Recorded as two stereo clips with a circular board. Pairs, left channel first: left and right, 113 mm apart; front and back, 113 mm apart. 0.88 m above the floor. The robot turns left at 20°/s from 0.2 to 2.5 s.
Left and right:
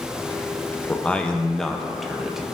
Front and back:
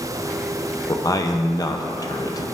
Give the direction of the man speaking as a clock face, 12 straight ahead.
11 o'clock.